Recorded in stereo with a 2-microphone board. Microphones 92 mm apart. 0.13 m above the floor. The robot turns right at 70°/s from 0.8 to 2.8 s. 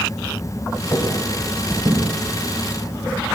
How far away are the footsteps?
About 5.5 m.